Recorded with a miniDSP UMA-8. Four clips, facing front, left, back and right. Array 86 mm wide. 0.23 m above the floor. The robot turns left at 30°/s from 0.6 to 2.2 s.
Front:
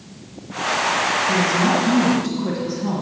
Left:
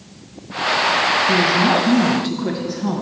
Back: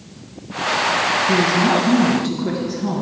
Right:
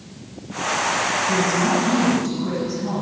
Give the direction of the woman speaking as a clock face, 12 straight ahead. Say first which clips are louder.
Left 3 dB, back 3 dB; 8 o'clock.